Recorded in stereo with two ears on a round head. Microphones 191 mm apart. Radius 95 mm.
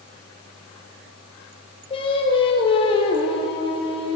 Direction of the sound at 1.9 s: 25° left (ahead or behind).